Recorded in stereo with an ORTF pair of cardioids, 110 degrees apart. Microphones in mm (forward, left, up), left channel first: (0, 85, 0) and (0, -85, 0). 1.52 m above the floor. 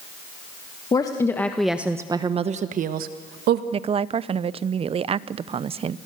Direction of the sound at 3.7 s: 35° right.